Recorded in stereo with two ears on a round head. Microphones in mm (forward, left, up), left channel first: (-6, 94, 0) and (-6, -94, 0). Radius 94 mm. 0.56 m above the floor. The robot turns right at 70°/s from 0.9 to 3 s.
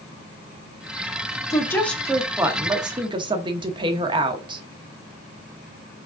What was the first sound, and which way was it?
A woman speaking, 15° left (ahead or behind).